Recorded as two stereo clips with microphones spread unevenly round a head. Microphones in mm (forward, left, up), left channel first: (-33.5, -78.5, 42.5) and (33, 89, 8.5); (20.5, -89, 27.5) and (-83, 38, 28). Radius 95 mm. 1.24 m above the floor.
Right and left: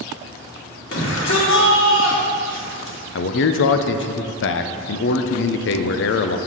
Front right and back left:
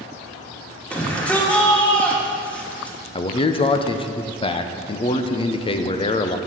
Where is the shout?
135° right, 2 m.